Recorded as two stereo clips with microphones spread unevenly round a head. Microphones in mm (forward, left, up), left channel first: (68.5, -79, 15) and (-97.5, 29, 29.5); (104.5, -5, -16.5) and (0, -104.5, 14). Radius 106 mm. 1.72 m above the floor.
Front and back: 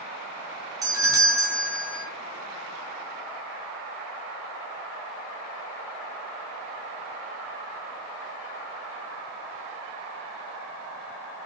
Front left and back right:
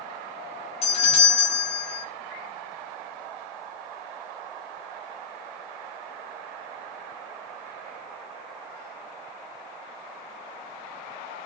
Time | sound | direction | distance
0.8 | a doorbell | 75° left | 0.8 m